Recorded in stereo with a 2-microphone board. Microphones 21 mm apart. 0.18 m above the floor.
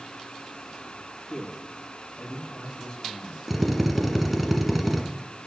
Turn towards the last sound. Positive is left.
turn(degrees=-5)  # may be behind; listen again after turning